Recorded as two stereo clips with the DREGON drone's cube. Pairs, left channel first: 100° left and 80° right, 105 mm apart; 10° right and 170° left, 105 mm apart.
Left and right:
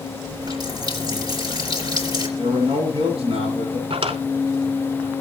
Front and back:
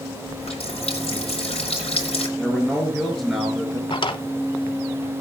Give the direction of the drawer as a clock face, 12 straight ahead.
2 o'clock.